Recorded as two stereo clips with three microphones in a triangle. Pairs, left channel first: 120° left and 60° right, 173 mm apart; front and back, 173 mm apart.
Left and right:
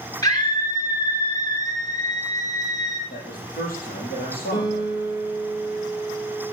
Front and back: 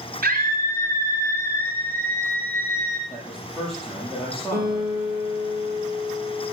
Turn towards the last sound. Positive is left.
turn(degrees=-175)